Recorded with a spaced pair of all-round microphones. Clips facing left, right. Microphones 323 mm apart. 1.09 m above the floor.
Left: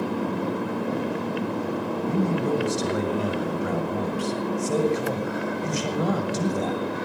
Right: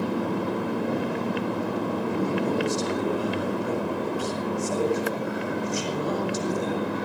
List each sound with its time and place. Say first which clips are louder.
2.1 s a man speaking: left 4 dB; 85° left, 6.5 m